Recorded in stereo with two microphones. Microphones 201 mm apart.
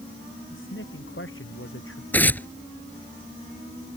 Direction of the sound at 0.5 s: 70° left (ahead or behind).